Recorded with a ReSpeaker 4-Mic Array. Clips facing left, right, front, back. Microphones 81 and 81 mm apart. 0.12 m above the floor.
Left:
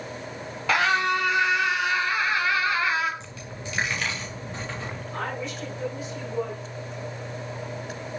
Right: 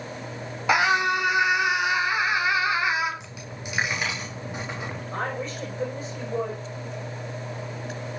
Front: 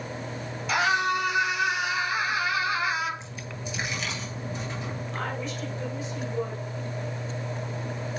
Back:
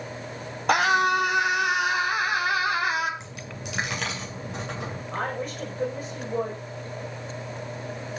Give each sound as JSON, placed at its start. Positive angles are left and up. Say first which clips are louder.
{"t": 0.7, "sound": "a scream", "louder": "right 1 dB, back 4 dB", "azimuth_deg": -160, "distance_m": 3.5}
{"t": 3.2, "sound": "a dropped coin", "louder": "even, even", "azimuth_deg": -165, "distance_m": 6.5}
{"t": 5.1, "sound": "a woman speaking", "louder": "right 2 dB, back 4 dB", "azimuth_deg": -140, "distance_m": 7.5}